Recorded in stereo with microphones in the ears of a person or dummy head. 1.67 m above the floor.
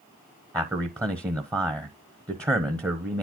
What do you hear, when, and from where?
0.5 s a man speaking: 15° right (ahead or behind), 0.8 m